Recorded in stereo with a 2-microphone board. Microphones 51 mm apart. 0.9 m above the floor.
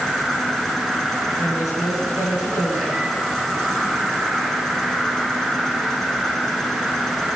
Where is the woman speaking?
85° left, 9.5 m.